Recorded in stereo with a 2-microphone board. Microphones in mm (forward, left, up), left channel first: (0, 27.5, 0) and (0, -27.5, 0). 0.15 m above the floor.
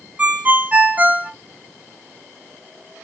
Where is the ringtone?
25° right (ahead or behind), 0.9 m.